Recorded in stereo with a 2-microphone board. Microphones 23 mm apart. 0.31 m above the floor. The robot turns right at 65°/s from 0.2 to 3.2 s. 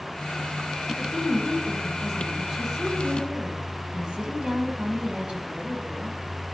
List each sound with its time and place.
1.0 s a woman speaking: 125° left, 1.8 m; by 6.2 s 90° right, 1.8 m